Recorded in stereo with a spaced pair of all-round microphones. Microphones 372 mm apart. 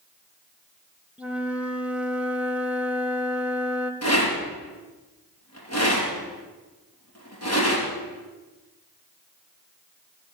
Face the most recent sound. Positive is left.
turn(degrees=40)  # may be behind; listen again after turning